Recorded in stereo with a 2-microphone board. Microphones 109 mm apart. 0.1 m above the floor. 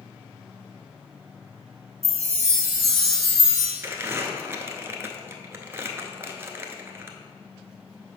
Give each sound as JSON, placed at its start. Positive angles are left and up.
{"t": 2.0, "sound": "a chime", "side_deg": -30, "distance_m": 1.4}
{"t": 3.8, "sound": "crumpling", "side_deg": -25, "distance_m": 0.6}